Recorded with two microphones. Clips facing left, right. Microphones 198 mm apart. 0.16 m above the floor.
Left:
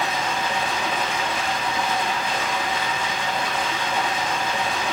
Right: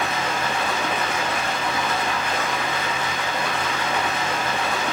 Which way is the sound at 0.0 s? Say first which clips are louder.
Even; 70° right (ahead or behind).